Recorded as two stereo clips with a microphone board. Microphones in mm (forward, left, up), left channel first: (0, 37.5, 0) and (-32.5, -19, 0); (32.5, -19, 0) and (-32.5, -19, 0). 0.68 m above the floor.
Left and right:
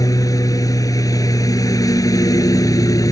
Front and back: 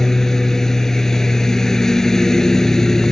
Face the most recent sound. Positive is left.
turn(degrees=85)